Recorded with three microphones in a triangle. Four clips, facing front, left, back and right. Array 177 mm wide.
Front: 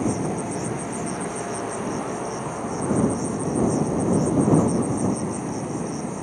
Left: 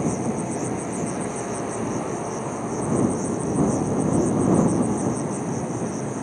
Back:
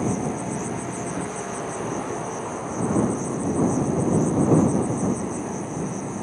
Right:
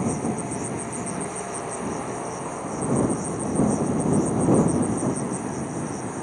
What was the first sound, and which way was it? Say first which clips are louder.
An insect: left 1 dB, front 1 dB; 80° left.